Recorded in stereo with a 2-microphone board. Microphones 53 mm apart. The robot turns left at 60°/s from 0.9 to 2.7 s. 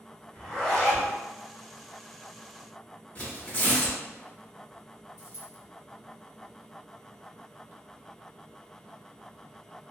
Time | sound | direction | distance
0.3 | a zipper | 10° left (ahead or behind) | 1.2 m
3.1 | tearing paper | 35° left (ahead or behind) | 1.2 m
5.2 | a dropped coin | 70° left (ahead or behind) | 1.0 m